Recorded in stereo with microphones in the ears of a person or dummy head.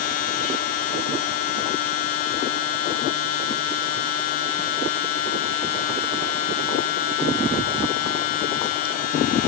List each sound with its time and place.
0.0 s a machine running: 50° left (ahead or behind)